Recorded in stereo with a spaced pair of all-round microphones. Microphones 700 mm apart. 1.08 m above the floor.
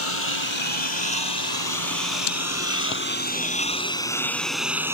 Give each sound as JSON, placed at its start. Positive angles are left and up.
{"t": 0.0, "sound": "a lawn mower", "side_deg": 45}